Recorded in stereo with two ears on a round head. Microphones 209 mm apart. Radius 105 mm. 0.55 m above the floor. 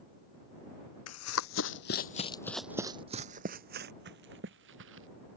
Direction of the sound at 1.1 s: 70° left (ahead or behind).